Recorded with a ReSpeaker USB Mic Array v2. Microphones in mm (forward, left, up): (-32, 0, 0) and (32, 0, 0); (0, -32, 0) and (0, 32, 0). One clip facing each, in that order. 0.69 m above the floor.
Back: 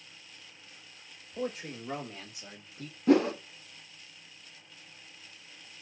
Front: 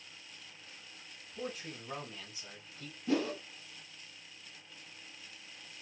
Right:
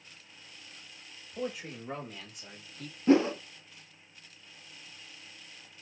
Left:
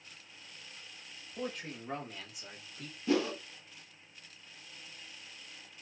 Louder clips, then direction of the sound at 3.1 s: Back 9 dB, right 7 dB; 150° right.